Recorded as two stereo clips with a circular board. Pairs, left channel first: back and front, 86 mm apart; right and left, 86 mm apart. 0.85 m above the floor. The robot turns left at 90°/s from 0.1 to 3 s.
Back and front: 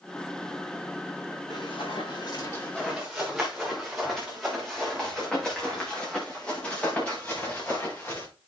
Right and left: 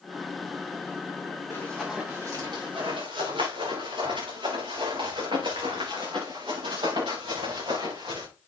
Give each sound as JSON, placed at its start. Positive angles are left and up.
{"t": 1.5, "sound": "running footsteps", "azimuth_deg": -145, "distance_m": 8.0}